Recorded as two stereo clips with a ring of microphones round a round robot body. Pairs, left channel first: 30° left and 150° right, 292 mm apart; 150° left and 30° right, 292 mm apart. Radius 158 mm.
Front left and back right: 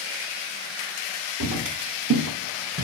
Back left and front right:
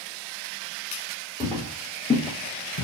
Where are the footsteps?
115° right, 1.0 m; by 2.8 s 145° left, 0.8 m.